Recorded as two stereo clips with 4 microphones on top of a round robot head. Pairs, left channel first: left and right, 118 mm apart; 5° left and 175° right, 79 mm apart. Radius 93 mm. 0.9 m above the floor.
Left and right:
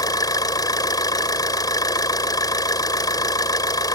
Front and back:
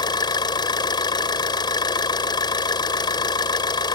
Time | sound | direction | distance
0.0 | an engine running | 30° left | ?